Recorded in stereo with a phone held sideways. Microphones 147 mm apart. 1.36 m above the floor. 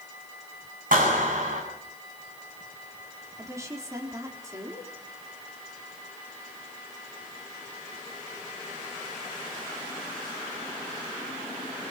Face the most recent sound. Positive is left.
turn(degrees=-20)  # may be behind; listen again after turning